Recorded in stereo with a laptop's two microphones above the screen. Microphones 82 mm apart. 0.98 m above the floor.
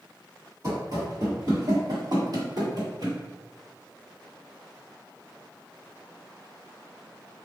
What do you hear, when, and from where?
0.6 s running footsteps: 40° right (ahead or behind), 1.6 m; by 3.2 s 55° right (ahead or behind), 1.6 m